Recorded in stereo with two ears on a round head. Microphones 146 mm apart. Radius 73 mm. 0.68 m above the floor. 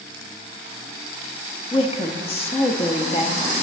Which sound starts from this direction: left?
A woman speaking, at 1.7 s.